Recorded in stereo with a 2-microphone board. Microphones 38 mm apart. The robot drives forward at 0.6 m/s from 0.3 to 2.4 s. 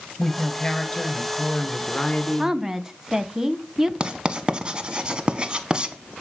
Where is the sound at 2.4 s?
15° right (ahead or behind), 1.0 m.